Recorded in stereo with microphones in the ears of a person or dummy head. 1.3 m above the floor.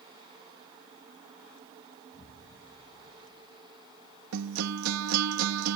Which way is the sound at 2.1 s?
30° left (ahead or behind).